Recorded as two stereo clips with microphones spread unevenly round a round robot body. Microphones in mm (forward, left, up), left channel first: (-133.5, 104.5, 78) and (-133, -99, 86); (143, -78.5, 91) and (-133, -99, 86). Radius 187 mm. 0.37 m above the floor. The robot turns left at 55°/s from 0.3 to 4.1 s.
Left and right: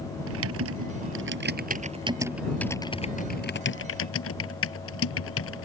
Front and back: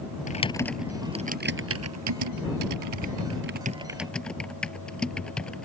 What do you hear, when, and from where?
0.3 s typing on a keyboard: 60° right; by 5.7 s 90° left